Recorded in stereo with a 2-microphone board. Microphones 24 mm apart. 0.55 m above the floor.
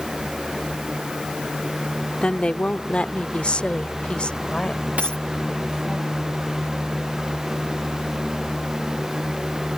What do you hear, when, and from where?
2.2 s a woman speaking: 50° left (ahead or behind); by 6.0 s 40° left (ahead or behind)
5.0 s a dropped coin: 80° right